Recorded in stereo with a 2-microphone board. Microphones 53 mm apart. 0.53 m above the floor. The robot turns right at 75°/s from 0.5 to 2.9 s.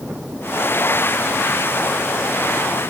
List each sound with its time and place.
Only background noise.